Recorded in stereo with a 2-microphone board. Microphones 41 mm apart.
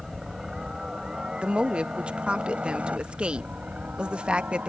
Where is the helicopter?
15° right (ahead or behind); by 4.7 s 50° right (ahead or behind).